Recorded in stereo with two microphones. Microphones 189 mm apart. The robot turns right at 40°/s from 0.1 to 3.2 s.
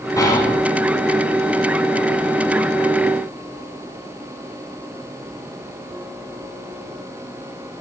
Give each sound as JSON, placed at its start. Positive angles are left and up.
{"t": 0.2, "sound": "whispering", "side_deg": 15, "distance_m": 1.4}